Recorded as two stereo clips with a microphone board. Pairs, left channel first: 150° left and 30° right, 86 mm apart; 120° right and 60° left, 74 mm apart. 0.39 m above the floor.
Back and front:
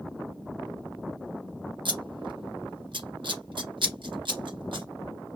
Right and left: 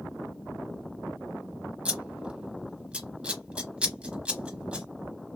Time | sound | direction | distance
1.9 | scissors | 15° right | 0.8 m